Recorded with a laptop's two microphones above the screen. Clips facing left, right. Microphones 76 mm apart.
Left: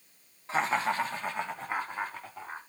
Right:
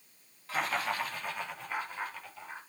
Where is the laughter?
25° left (ahead or behind), 2 m; by 2.6 s 35° left (ahead or behind), 4 m.